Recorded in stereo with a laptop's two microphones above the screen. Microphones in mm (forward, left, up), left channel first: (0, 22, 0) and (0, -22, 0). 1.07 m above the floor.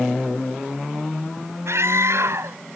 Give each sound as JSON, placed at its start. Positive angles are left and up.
{"t": 1.7, "sound": "a scream", "side_deg": -80}